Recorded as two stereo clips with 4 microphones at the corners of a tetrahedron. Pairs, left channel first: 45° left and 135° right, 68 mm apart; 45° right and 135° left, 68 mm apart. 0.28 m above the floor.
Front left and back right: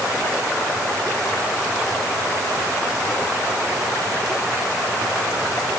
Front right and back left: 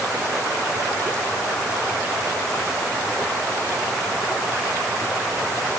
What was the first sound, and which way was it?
Only background noise.